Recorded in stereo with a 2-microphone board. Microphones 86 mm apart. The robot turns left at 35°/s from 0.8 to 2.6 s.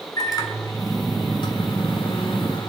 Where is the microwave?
130° left, 2.5 m; by 2.7 s 70° left, 2.5 m.